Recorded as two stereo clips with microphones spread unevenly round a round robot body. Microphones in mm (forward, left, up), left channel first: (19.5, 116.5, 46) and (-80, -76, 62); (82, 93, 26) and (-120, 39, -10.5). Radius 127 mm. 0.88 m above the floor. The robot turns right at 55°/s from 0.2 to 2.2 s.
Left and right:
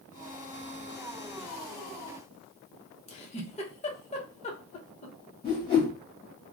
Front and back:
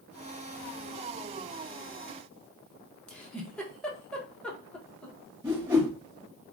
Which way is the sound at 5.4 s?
125° left.